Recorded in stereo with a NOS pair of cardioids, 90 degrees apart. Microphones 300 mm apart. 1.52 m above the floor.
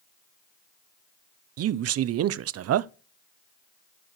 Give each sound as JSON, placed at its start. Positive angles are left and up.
{"t": 1.6, "sound": "a man speaking", "azimuth_deg": -55, "distance_m": 0.5}